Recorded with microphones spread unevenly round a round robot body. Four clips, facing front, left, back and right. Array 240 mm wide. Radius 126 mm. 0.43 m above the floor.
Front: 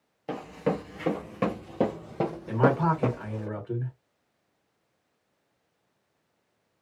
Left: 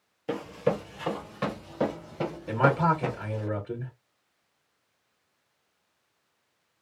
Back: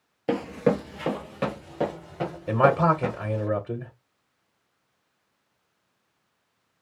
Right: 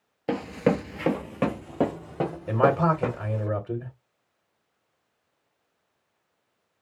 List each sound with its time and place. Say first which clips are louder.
0.3 s running footsteps: right 4 dB, back 6 dB; 150° right, 0.6 m; by 3.5 s 40° right, 1.7 m
2.5 s a man speaking: right 2 dB, back 4 dB; 155° right, 1.3 m